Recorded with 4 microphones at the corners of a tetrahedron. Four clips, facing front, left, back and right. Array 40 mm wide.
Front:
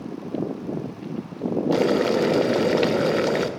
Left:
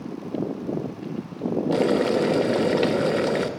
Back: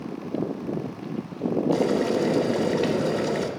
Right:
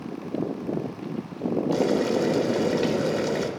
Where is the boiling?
25° left, 0.9 m.